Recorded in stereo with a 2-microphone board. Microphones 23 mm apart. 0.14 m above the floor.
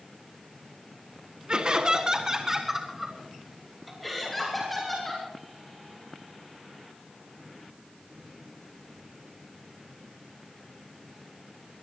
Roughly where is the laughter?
Right.